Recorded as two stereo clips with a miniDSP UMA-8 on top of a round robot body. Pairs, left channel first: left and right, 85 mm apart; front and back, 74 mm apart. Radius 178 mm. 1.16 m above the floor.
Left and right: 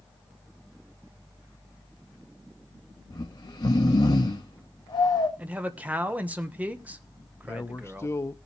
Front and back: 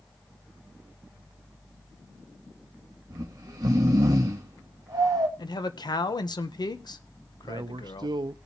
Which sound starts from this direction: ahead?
A man speaking, at 5.4 s.